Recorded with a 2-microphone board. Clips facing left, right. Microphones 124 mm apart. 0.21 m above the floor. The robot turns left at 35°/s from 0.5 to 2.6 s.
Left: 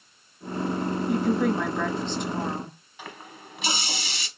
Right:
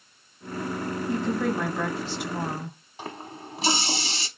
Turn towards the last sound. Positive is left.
turn(degrees=-35)  # may be behind; listen again after turning